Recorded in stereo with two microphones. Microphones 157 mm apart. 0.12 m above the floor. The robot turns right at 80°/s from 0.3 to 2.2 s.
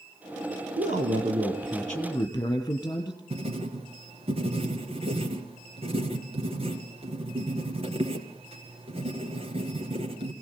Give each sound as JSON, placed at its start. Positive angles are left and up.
{"t": 0.8, "sound": "a man speaking", "azimuth_deg": -85, "distance_m": 3.0}
{"t": 3.3, "sound": "writing", "side_deg": -40, "distance_m": 2.5}